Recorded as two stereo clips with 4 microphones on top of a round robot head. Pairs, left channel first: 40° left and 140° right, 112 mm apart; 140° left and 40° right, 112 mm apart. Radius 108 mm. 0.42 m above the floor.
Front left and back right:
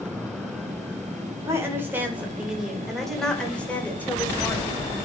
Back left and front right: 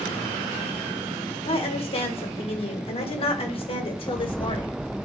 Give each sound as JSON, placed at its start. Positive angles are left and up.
{"t": 1.4, "sound": "a woman speaking", "azimuth_deg": 160, "distance_m": 2.0}